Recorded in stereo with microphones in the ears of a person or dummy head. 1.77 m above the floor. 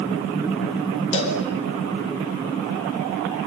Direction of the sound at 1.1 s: 35° left (ahead or behind).